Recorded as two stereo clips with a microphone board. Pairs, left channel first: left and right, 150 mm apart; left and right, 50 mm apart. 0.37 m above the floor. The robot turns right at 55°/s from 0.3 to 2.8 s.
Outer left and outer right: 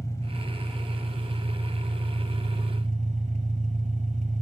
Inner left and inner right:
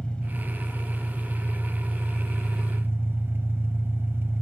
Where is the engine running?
155° left, 1.5 m; by 4.4 s 65° right, 1.5 m.